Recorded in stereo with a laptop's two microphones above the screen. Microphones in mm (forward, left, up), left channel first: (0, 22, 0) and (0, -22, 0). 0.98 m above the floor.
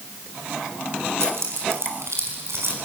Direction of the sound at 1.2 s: 75° right (ahead or behind).